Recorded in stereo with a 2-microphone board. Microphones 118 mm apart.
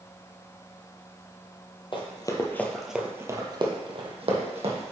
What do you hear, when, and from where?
1.9 s running footsteps: 45° left (ahead or behind), 1.2 m; by 4.9 s 65° right (ahead or behind), 2 m